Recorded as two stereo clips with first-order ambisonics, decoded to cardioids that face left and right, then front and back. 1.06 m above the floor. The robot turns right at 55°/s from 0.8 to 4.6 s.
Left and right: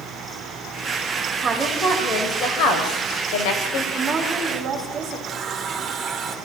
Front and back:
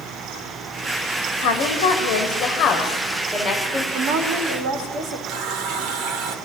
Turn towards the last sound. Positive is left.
turn(degrees=-145)